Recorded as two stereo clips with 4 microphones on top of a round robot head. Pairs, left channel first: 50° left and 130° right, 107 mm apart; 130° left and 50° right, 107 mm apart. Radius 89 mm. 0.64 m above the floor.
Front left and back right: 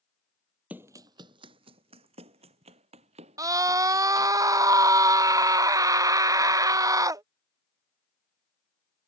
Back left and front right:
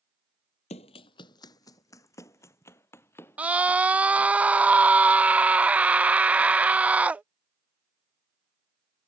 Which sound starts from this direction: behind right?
A scream, at 3.4 s.